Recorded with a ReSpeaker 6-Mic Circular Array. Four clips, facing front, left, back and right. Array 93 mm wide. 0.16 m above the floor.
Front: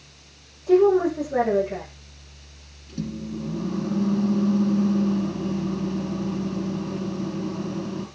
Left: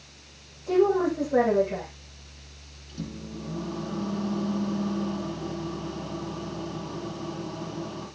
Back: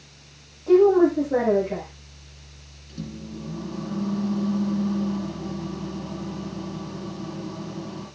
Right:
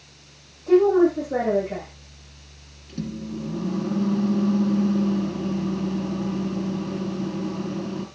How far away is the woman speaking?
About 8 m.